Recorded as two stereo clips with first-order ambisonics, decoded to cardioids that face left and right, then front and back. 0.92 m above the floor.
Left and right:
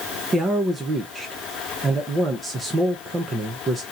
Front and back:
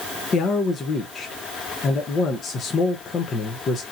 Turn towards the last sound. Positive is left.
turn(degrees=-35)